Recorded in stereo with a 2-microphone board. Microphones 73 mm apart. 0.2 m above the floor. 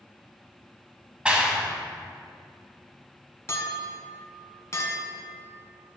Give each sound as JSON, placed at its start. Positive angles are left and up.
{"t": 1.2, "sound": "a clap", "side_deg": -15, "distance_m": 0.9}
{"t": 3.5, "sound": "a clink", "side_deg": 40, "distance_m": 1.4}